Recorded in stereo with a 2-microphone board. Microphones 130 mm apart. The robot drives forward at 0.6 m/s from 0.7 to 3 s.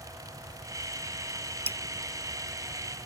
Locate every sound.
1.7 s dripping: 50° right (ahead or behind); by 1.8 s 45° right (ahead or behind)